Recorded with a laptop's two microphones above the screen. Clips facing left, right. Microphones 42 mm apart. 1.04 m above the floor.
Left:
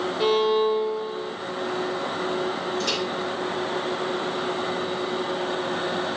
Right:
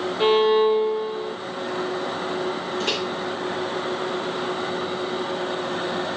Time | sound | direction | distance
0.2 | a violin | 35° right (ahead or behind) | 0.8 m
2.8 | a microwave | 30° right (ahead or behind) | 3 m